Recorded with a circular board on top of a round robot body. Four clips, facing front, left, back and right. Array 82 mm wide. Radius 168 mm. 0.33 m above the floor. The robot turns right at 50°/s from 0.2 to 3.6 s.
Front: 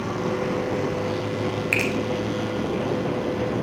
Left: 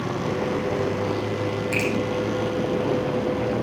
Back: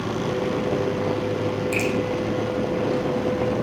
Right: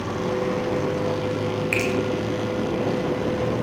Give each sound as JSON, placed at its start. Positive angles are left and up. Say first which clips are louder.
{"t": 1.7, "sound": "a finger snap", "louder": "even, even", "azimuth_deg": -30, "distance_m": 2.0}